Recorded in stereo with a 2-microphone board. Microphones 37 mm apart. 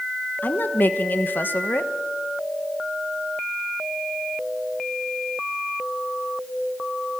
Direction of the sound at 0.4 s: 65° left (ahead or behind).